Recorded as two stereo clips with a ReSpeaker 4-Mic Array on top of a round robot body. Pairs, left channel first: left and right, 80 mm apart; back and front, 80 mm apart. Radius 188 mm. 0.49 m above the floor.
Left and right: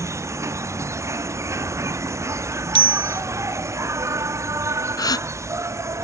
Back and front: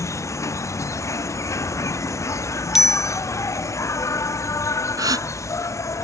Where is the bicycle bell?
85° right.